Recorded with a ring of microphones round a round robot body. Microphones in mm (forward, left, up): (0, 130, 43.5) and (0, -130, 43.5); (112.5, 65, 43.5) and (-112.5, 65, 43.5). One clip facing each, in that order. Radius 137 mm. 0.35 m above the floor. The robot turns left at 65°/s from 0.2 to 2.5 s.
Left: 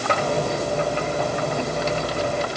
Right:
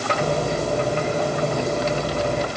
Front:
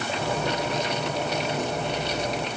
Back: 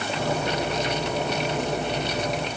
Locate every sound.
Only background noise.